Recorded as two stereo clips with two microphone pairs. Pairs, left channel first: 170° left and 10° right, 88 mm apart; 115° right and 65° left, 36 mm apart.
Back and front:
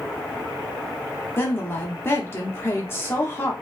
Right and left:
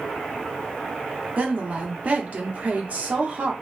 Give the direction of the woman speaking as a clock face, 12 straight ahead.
8 o'clock.